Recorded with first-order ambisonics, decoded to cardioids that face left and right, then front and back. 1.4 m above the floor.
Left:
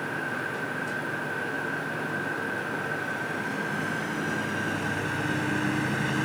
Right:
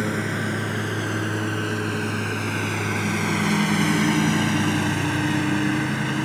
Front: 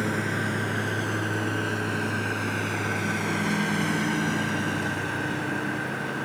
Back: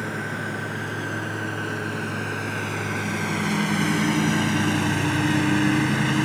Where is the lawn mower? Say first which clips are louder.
Right 4 dB, front 1 dB; 80° right; by 6.3 s 160° right.